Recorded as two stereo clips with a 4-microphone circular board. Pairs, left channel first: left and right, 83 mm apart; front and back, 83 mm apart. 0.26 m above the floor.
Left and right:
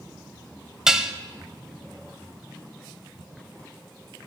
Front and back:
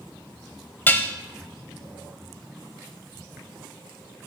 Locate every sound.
0.9 s dishes clattering: 15° right, 0.7 m